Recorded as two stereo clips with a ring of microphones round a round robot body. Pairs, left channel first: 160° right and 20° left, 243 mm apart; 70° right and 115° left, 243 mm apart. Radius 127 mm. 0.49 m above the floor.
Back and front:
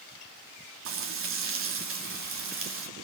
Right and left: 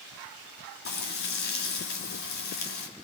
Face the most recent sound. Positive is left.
turn(degrees=-15)